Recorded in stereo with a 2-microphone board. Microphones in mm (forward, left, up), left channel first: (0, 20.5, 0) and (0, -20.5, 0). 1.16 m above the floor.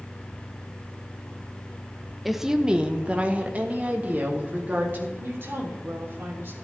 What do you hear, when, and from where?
2.2 s a woman speaking: centre (ahead or behind), 0.8 m; by 5.1 s 45° right (ahead or behind), 3 m
5.2 s a woman speaking: 55° right (ahead or behind), 3 m